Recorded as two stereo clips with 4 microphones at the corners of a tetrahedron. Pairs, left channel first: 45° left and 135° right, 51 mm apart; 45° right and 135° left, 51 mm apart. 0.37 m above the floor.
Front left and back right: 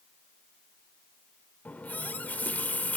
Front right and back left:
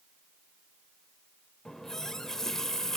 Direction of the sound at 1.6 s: 30° left.